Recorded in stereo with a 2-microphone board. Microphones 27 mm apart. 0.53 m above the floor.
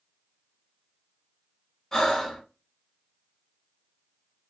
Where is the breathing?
15° left (ahead or behind), 0.9 m.